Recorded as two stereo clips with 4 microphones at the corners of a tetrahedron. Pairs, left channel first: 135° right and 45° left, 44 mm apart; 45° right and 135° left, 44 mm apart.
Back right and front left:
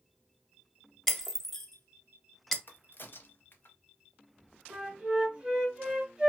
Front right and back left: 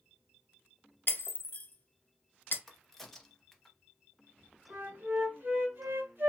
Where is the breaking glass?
55° right, 0.6 m.